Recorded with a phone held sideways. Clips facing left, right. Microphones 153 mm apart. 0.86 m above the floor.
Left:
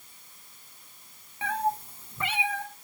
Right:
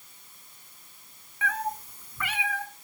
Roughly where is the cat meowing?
Left.